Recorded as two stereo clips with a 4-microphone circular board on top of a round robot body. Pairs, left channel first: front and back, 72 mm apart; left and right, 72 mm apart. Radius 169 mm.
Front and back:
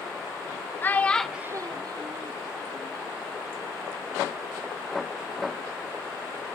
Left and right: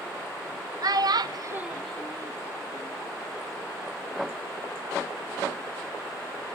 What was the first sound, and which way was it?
A child speaking, 65° right.